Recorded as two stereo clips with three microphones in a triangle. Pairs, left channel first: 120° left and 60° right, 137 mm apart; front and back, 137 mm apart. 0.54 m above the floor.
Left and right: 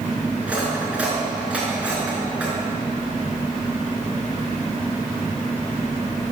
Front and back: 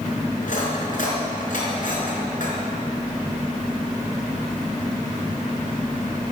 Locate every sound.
0.4 s cutlery clinking: 20° left, 4.5 m